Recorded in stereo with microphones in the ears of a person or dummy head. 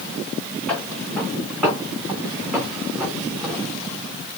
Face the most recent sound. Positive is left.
turn(degrees=0)  # may be behind; listen again after turning